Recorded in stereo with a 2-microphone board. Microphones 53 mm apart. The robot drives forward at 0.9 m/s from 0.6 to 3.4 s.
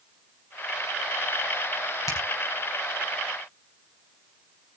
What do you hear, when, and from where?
2.1 s a finger snap: 70° left (ahead or behind), 5 m